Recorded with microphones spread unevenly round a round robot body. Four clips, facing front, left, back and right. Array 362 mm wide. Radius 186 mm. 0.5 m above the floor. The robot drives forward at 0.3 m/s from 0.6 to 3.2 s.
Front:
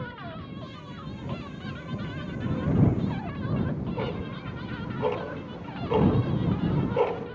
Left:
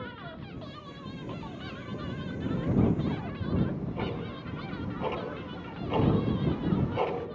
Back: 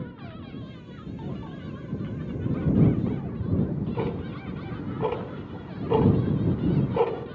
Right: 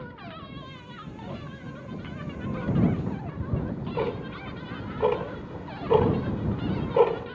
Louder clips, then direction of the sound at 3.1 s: Left 1 dB, back 2 dB; 130° right.